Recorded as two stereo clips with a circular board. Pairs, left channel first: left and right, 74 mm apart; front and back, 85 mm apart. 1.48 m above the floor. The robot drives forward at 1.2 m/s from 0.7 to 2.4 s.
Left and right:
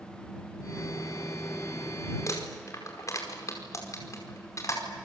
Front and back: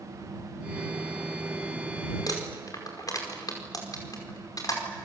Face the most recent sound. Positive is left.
turn(degrees=45)